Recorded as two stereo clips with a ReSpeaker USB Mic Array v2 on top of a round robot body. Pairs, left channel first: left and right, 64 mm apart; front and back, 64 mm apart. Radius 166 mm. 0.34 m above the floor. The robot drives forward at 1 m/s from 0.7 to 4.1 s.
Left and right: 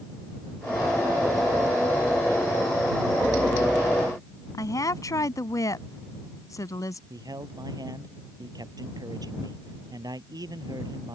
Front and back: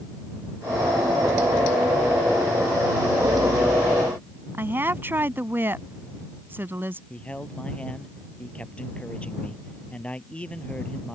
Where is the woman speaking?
120° left.